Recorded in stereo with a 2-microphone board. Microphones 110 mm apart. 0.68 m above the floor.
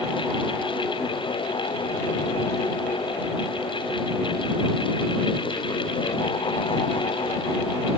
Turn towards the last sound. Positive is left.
No sound to turn to.